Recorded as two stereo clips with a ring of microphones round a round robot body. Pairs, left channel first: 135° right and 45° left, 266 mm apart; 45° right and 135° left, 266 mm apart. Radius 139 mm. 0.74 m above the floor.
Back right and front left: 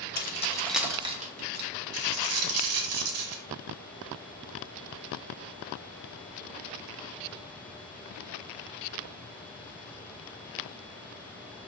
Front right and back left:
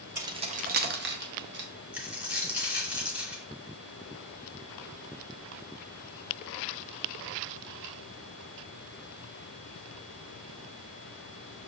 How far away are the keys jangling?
About 0.5 m.